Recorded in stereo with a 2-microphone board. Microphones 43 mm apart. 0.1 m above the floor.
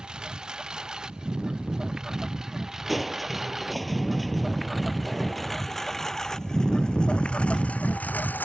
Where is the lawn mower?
20° right (ahead or behind); by 8.4 s 45° left (ahead or behind).